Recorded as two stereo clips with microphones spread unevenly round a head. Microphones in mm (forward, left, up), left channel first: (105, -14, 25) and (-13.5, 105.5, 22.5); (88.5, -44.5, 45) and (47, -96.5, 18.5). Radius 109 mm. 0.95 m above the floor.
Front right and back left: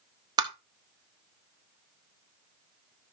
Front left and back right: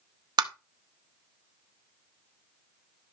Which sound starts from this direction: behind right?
Tapping, at 0.4 s.